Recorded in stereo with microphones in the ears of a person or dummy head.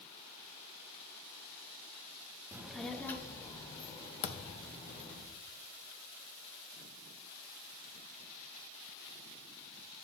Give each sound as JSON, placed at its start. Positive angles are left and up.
{"t": 2.5, "sound": "a child speaking", "side_deg": -15, "distance_m": 0.6}
{"t": 4.2, "sound": "a thud", "side_deg": 50, "distance_m": 0.6}